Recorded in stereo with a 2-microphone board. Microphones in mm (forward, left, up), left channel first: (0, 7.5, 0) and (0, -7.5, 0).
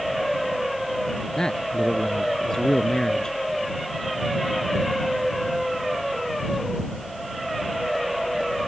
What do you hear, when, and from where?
1.4 s a man speaking: 55° left (ahead or behind); by 3.4 s 35° left (ahead or behind)